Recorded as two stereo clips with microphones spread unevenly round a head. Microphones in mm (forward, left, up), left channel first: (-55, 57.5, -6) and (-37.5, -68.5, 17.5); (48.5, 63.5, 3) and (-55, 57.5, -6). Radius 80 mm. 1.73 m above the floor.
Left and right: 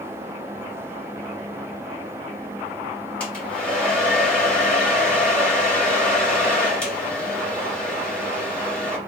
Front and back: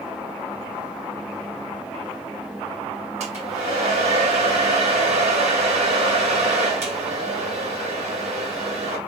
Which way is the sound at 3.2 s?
175° right.